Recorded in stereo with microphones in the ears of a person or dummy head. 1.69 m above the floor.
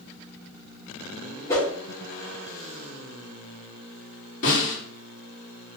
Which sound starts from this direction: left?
A snare drum, at 4.4 s.